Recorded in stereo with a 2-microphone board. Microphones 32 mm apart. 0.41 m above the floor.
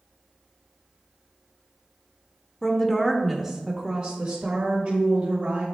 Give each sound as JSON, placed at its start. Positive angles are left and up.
{"t": 2.6, "sound": "a woman speaking", "side_deg": 20, "distance_m": 0.9}